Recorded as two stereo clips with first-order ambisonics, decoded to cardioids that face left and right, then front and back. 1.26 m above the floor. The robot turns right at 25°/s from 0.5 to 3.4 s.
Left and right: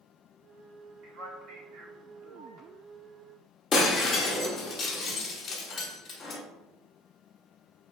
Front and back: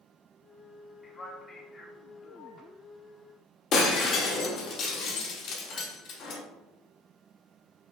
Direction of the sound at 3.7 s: 25° left.